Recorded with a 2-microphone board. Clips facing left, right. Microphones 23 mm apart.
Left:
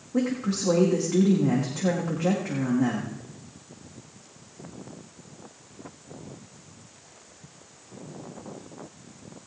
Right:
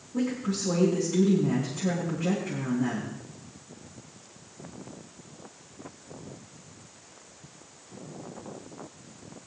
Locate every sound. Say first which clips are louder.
0.1 s a woman speaking: left 3 dB; 50° left (ahead or behind), 7 m